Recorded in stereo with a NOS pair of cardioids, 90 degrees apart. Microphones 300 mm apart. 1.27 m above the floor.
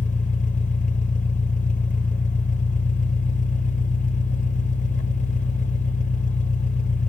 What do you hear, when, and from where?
0.0 s an engine running: 25° left, 1.4 m